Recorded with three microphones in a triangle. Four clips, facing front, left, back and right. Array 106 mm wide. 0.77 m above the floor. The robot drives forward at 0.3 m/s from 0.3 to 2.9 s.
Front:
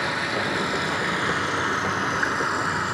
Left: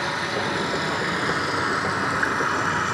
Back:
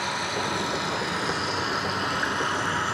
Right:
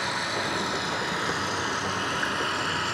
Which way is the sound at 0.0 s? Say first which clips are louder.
Left 4 dB, front 2 dB; 25° left.